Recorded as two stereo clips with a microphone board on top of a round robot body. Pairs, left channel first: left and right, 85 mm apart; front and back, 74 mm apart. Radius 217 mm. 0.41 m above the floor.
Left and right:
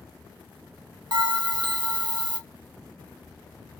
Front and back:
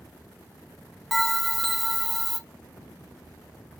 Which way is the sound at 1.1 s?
90° right.